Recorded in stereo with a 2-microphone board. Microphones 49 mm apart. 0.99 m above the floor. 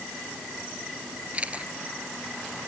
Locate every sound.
1.3 s a camera shutter: 25° right (ahead or behind)